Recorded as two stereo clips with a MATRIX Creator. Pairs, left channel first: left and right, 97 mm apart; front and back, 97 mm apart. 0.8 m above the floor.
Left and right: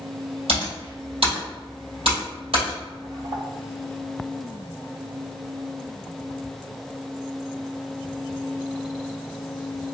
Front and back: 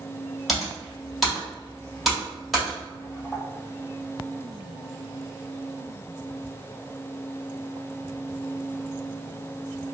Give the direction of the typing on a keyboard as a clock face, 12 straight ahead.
3 o'clock.